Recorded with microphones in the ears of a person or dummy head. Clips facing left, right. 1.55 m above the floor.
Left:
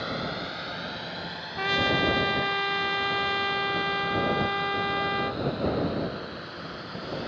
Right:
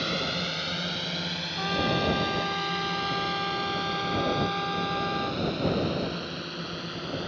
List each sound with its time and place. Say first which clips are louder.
0.0 s a drone: right 1 dB; 35° right (ahead or behind)
1.6 s a trumpet: left 1 dB; 30° left (ahead or behind)